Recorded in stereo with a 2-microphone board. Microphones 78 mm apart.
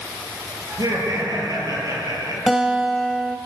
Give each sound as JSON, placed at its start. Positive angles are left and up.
{"t": 0.7, "sound": "laughter", "side_deg": -60, "distance_m": 8.5}
{"t": 2.5, "sound": "a guitar", "side_deg": -5, "distance_m": 1.8}